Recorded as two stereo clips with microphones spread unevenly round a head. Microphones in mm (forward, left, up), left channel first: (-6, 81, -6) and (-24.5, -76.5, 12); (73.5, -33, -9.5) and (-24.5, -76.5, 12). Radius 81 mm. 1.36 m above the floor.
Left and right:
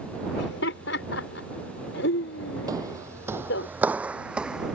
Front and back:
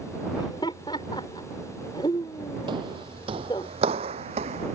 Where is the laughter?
95° left.